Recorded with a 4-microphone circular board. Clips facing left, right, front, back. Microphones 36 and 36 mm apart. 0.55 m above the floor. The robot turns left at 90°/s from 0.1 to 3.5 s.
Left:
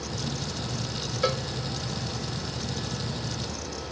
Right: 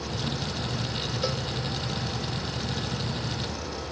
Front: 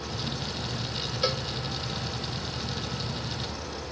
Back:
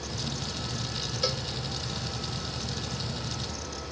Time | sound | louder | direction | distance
1.2 | a cowbell | left 6 dB, front 3 dB | 70° left | ?